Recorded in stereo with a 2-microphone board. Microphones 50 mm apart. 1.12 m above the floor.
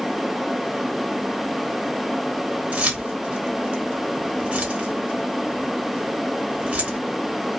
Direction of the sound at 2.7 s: 30° right (ahead or behind).